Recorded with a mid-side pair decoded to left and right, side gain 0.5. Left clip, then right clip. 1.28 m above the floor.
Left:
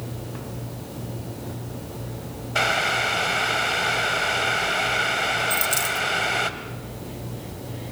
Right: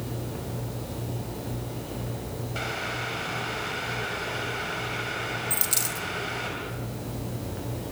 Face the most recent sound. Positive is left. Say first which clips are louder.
# left 7 dB
turn(degrees=-5)